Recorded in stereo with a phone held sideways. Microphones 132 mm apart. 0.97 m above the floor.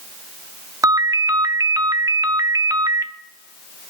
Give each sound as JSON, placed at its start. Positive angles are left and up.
{"t": 0.8, "sound": "a ringtone", "side_deg": -25, "distance_m": 0.6}